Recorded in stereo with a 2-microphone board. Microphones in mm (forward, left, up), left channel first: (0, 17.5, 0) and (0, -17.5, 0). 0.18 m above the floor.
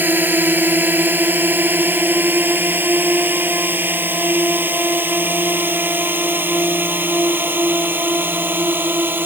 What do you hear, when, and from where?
0.0 s a drone: 65° right (ahead or behind); by 9.3 s 75° right (ahead or behind)